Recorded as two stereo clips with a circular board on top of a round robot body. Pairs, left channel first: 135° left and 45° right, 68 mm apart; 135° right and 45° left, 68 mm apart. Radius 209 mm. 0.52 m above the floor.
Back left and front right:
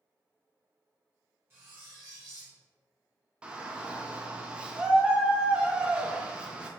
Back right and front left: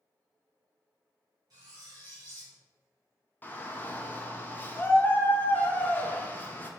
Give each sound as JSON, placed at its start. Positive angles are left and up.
{"t": 1.5, "sound": "cutlery clinking", "azimuth_deg": 15, "distance_m": 1.5}
{"t": 3.4, "sound": "a shout", "azimuth_deg": -105, "distance_m": 0.7}